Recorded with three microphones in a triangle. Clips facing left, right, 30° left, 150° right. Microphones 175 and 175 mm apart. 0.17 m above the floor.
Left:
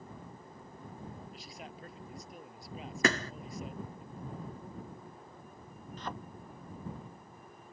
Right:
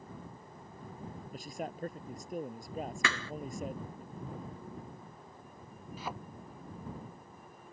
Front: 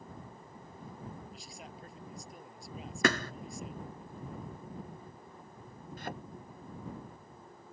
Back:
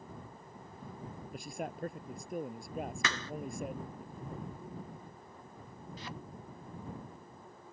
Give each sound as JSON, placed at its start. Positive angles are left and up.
{"t": 1.3, "sound": "a man speaking", "azimuth_deg": -125}
{"t": 3.0, "sound": "a thud", "azimuth_deg": 50}
{"t": 6.0, "sound": "a thud", "azimuth_deg": -5}